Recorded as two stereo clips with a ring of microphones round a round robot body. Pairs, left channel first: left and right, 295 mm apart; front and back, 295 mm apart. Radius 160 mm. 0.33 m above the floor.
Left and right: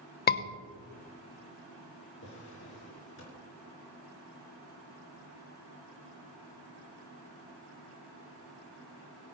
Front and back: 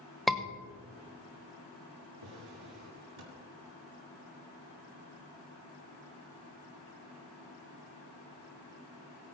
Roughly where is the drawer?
Behind left.